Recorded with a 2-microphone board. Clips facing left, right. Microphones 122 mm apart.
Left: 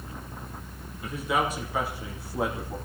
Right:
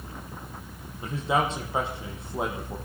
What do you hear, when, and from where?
1.0 s a man speaking: 30° right (ahead or behind), 5.5 m; by 2.8 s 20° right (ahead or behind), 6 m